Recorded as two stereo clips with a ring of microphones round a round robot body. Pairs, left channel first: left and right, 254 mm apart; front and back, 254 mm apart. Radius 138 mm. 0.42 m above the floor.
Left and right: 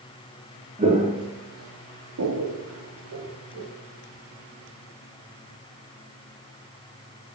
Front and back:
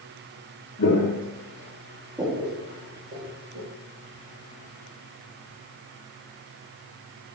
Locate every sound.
0.8 s footsteps: 25° right, 0.7 m; by 3.7 s 135° right, 1.3 m